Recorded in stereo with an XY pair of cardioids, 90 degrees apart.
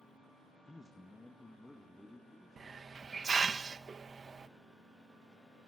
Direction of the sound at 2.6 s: 40° right.